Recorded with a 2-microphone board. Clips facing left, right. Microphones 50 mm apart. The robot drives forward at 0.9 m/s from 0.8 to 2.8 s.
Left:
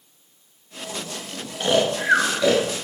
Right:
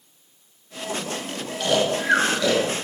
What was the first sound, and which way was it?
Snoring, 30° left (ahead or behind).